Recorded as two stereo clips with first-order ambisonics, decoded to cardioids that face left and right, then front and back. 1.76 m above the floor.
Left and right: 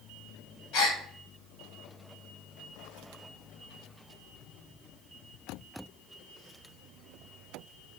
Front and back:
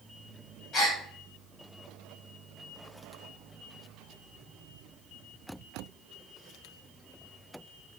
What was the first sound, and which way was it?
A gasp, 60° left.